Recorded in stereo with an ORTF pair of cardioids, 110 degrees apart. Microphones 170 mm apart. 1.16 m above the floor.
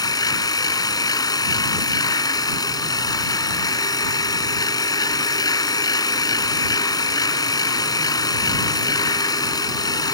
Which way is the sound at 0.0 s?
20° left.